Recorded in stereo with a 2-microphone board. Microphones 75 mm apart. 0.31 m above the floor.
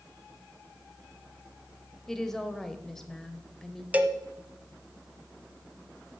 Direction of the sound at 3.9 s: 20° right (ahead or behind).